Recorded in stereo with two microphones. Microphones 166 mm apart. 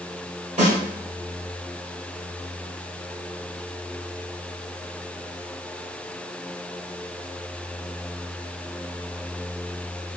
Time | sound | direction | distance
0.6 | a snare drum | 50° right (ahead or behind) | 1.9 m